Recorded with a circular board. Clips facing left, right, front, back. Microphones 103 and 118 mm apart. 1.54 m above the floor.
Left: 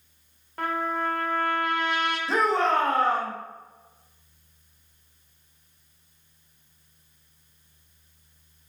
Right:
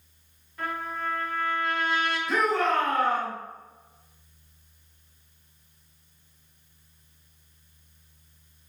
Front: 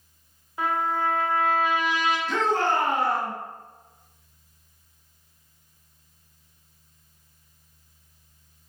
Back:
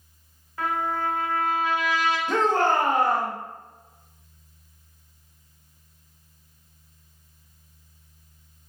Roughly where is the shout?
Behind left.